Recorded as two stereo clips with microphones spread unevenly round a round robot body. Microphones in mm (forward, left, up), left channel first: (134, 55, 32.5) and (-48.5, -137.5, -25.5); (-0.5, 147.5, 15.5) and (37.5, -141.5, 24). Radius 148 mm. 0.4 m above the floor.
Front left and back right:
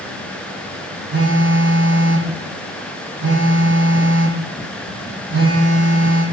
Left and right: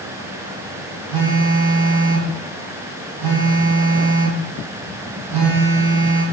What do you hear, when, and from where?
1.1 s a phone buzzing: 90° right, 2 m